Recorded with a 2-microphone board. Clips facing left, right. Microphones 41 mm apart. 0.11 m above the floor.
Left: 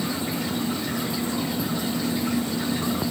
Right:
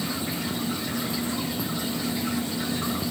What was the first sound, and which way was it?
Only background noise.